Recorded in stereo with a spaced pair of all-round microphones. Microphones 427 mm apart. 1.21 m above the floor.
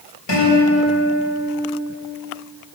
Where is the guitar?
85° left, 5.5 m.